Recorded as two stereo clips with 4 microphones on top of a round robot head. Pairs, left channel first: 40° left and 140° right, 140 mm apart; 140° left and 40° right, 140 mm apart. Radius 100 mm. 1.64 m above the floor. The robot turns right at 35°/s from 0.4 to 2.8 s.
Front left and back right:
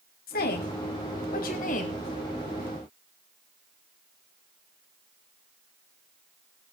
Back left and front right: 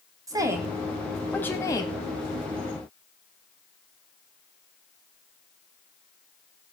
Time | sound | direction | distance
0.3 | a woman speaking | 25° left | 4.5 m